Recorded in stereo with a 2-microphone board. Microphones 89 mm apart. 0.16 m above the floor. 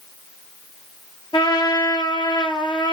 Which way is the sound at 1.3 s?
65° left (ahead or behind).